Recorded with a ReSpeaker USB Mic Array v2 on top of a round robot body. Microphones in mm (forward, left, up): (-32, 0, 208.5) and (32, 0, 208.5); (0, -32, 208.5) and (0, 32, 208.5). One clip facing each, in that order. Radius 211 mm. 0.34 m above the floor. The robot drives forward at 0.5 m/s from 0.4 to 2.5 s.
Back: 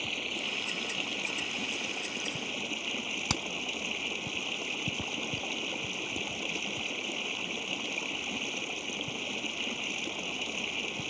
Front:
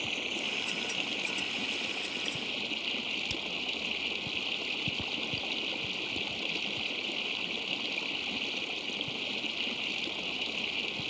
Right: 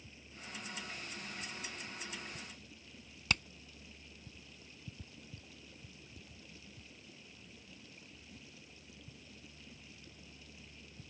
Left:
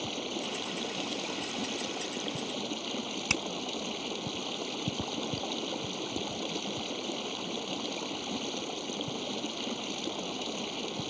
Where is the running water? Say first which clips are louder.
Even, left 18 dB; 90° left; by 11.1 s 100° left.